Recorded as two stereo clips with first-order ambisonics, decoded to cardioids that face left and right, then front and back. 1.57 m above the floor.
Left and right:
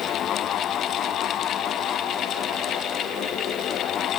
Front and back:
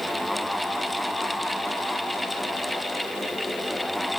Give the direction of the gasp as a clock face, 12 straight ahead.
I don't hear a gasp.